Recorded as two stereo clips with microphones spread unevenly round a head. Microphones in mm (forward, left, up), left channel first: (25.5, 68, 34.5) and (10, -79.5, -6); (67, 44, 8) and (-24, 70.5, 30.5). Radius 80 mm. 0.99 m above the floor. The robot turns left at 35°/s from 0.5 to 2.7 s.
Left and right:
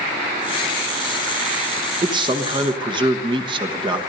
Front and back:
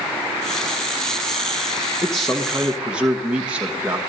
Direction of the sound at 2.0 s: 80° right.